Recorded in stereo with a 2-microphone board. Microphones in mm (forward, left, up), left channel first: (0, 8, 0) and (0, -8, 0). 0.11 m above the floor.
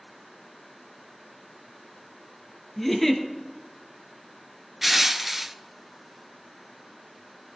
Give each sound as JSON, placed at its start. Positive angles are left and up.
{"t": 2.8, "sound": "a giggle", "side_deg": 15, "distance_m": 1.3}
{"t": 4.8, "sound": "crushing", "side_deg": -10, "distance_m": 0.5}